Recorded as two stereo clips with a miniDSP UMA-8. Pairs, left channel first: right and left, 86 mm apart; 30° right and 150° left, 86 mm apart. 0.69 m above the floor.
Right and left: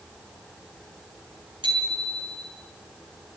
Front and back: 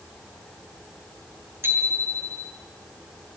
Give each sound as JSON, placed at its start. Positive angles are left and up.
{"t": 1.6, "sound": "a bicycle bell", "azimuth_deg": 90, "distance_m": 6.0}